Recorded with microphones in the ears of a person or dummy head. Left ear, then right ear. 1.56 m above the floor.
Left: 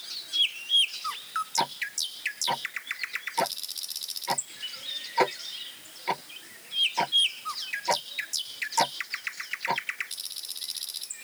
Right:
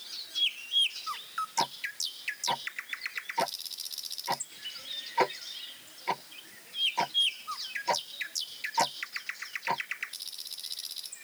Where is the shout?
I don't hear a shout.